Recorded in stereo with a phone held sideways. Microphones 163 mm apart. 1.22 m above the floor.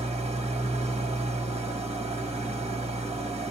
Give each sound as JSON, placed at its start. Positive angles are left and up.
{"t": 0.0, "sound": "an engine running", "side_deg": -40, "distance_m": 1.4}